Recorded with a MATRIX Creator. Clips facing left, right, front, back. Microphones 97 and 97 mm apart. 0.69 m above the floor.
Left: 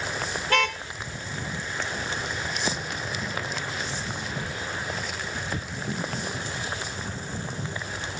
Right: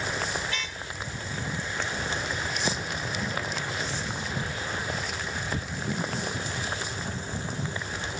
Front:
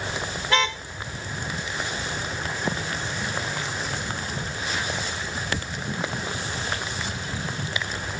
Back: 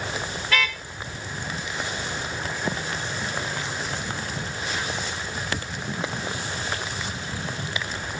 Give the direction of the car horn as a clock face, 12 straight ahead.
10 o'clock.